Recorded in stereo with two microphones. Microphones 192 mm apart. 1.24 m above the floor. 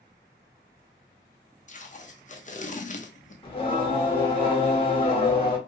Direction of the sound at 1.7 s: 40° left (ahead or behind).